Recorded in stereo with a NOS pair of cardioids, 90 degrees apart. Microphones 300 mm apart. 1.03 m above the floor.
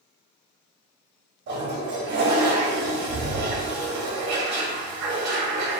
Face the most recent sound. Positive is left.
turn(degrees=-65)